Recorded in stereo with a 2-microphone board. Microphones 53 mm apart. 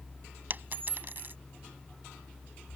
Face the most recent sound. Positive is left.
turn(degrees=-45)  # may be behind; listen again after turning